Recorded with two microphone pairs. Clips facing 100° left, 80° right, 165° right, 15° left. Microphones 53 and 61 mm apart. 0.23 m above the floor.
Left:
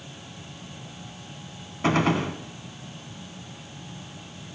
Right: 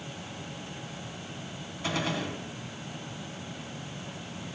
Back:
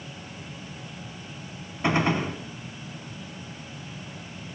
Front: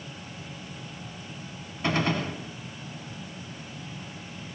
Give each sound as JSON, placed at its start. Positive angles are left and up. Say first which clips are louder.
{"t": 1.8, "sound": "a gunshot", "louder": "left 9 dB, back 3 dB", "azimuth_deg": 130, "distance_m": 1.4}